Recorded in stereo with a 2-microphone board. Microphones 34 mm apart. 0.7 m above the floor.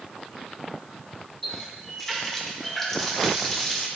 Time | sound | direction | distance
1.4 | a running tap | 10° left (ahead or behind) | 1.1 m